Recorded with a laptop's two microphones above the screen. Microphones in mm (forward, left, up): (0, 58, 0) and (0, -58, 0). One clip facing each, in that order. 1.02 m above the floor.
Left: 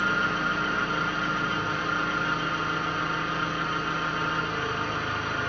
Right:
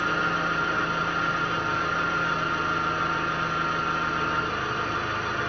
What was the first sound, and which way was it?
An engine running, 60° right (ahead or behind).